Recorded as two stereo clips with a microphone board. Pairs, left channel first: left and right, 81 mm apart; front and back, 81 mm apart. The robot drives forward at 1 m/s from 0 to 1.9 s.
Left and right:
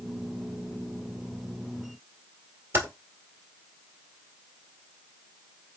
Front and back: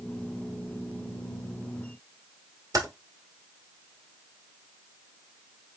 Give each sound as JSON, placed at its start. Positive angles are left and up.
{"t": 2.7, "sound": "typing on a keyboard", "azimuth_deg": -155, "distance_m": 1.7}